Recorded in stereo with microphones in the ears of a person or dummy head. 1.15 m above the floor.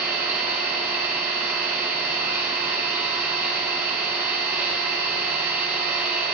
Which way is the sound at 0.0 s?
15° right (ahead or behind).